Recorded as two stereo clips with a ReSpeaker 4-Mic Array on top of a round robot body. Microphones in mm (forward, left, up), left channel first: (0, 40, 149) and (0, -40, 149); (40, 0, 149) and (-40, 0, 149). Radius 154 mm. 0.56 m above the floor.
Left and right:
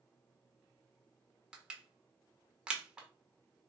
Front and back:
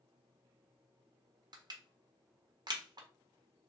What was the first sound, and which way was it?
Crushing, 165° right.